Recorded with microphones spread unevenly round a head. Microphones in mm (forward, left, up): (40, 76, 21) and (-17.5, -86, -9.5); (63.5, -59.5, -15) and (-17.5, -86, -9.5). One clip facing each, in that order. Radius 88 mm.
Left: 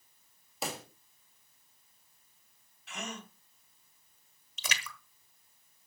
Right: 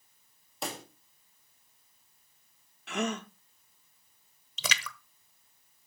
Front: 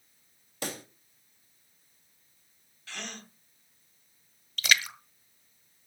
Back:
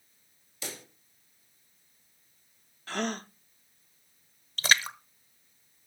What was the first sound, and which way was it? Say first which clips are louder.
A pop: even, front 5 dB; 20° right.